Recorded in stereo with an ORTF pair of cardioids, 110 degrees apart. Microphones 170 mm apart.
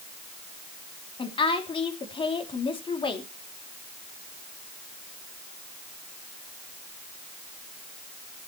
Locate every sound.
1.2 s a woman speaking: 30° left, 2.5 m